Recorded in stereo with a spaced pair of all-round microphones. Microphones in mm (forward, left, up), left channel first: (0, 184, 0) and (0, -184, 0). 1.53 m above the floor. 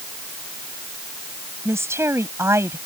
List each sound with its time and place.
1.6 s a woman speaking: 5° right (ahead or behind)